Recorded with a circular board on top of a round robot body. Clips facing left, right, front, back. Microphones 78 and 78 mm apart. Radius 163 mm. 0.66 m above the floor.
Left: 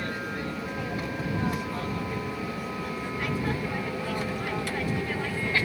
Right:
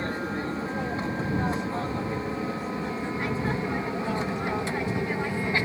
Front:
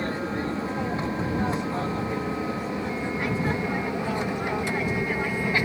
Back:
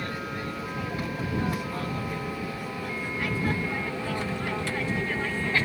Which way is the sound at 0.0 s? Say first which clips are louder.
Right 2 dB, front 5 dB; 45° right.